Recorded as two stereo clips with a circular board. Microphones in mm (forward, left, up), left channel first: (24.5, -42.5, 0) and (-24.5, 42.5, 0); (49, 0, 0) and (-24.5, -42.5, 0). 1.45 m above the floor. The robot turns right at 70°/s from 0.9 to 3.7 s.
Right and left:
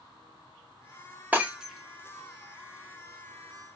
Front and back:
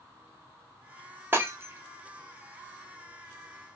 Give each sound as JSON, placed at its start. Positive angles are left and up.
{"t": 1.3, "sound": "breaking glass", "azimuth_deg": 175, "distance_m": 0.8}